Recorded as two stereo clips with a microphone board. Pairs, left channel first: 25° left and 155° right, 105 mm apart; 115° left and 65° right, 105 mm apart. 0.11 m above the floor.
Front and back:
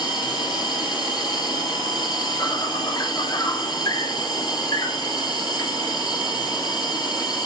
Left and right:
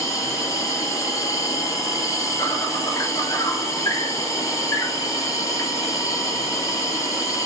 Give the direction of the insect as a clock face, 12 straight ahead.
10 o'clock.